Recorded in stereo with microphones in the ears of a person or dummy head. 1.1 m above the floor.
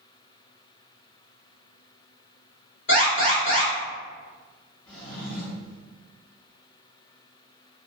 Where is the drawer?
75° left (ahead or behind), 1.1 m.